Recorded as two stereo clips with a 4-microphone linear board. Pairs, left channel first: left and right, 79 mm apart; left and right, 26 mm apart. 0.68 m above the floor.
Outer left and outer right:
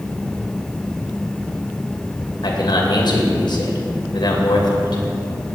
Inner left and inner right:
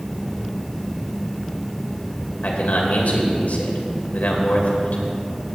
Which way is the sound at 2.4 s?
70° left (ahead or behind).